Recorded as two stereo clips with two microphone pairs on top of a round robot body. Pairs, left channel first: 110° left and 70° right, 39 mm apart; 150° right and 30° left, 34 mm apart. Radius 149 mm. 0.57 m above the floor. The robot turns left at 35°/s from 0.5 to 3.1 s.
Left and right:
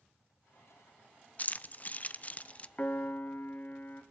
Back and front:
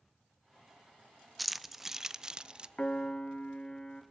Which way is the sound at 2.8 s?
155° left.